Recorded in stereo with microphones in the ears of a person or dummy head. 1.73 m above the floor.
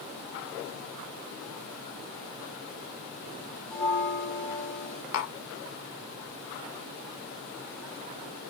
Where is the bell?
10° left (ahead or behind), 0.7 m.